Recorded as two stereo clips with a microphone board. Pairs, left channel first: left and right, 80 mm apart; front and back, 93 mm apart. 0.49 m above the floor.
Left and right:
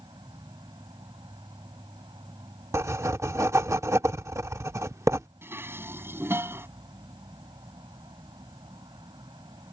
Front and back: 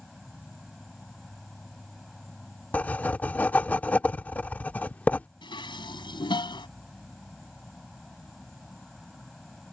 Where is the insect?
90° right.